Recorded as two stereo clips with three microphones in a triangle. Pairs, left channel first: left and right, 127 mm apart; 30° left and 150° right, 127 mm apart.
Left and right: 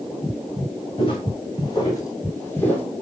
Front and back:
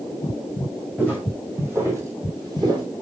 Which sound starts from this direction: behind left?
Footsteps, at 1.0 s.